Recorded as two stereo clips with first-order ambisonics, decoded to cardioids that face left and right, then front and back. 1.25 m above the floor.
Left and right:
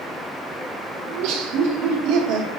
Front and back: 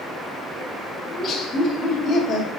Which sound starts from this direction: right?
Laughter, at 1.1 s.